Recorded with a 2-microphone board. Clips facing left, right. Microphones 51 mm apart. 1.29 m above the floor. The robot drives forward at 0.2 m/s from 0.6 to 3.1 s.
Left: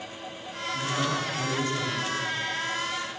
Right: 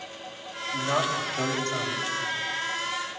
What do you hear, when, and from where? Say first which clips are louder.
0.7 s a man speaking: right 2 dB; 55° right (ahead or behind), 7 m; by 2.1 s 50° right (ahead or behind), 7 m